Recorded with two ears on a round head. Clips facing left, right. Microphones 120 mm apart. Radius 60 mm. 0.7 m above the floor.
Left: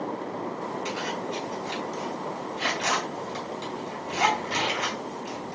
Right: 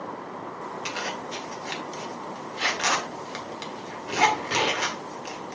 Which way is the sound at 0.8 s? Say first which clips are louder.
Left 2 dB; 80° right.